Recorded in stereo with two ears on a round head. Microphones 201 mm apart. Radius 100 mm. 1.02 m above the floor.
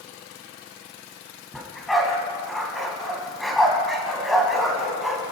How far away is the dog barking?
About 3.5 m.